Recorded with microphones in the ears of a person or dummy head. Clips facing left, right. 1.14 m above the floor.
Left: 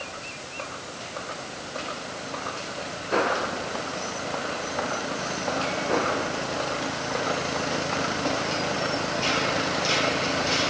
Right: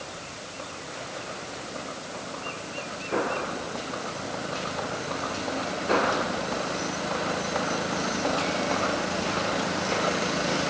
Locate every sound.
Only background noise.